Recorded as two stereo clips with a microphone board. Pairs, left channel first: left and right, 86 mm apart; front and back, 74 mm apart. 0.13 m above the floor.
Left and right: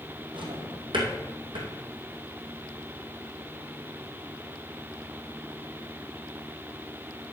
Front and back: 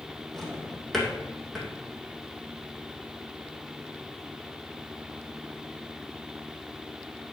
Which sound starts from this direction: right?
A drawer, at 0.3 s.